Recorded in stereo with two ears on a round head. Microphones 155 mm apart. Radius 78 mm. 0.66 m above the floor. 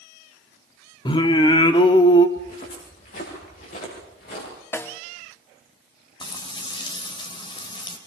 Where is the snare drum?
10° left (ahead or behind), 0.7 m.